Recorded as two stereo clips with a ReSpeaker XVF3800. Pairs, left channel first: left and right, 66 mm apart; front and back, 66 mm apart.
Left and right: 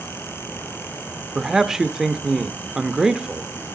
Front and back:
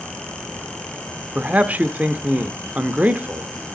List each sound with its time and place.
1.4 s a man speaking: 165° right, 0.7 m